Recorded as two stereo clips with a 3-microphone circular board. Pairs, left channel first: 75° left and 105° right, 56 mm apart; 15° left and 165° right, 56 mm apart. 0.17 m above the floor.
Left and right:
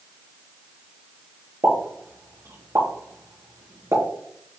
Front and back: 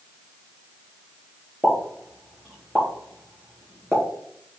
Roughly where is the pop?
Right.